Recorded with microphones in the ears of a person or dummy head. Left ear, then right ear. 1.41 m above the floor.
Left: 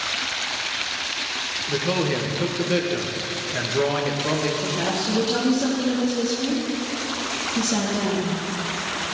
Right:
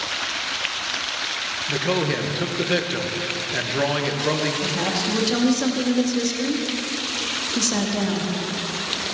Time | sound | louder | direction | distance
1.7 | a man speaking | right 1 dB | 15° right (ahead or behind) | 1.5 m
4.6 | a woman speaking | right 1 dB | 75° right (ahead or behind) | 2.5 m